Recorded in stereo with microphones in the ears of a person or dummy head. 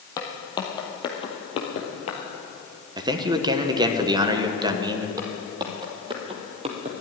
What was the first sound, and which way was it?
Footsteps, 20° left (ahead or behind).